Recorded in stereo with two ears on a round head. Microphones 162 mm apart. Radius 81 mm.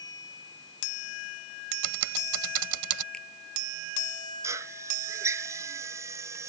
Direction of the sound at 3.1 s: 5° left (ahead or behind).